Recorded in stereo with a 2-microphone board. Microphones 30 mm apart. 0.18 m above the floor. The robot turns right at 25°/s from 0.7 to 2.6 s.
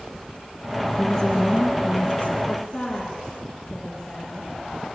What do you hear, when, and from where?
1.0 s a woman speaking: 10° left, 3 m; by 2.4 s 45° left, 3 m
2.5 s a woman speaking: 15° left (ahead or behind), 4.5 m; by 4.5 s 20° left (ahead or behind), 4.5 m